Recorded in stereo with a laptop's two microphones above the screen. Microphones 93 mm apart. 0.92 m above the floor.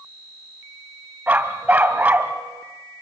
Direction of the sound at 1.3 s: 15° right (ahead or behind).